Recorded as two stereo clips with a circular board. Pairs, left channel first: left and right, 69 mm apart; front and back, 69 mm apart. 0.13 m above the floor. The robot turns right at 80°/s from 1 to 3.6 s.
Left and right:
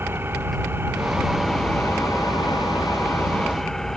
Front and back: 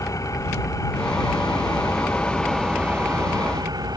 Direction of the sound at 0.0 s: 35° right.